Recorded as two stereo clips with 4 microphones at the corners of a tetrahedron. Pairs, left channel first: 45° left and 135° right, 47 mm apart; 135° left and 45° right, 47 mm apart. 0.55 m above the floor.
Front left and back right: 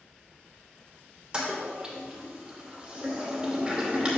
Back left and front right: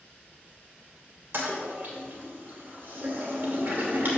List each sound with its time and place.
1.3 s a toilet flushing: 70° right, 2.5 m